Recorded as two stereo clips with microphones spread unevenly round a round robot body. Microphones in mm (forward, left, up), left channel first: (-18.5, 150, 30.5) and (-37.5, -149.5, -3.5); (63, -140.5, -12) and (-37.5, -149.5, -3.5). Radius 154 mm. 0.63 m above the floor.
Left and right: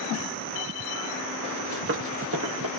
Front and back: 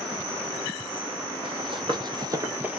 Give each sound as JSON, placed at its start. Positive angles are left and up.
{"t": 1.4, "sound": "running footsteps", "azimuth_deg": -150, "distance_m": 1.7}